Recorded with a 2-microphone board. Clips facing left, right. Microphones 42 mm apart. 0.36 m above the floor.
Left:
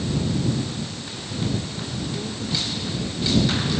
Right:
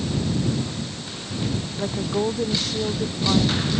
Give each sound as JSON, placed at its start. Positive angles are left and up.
{"t": 1.8, "sound": "a woman speaking", "side_deg": -65}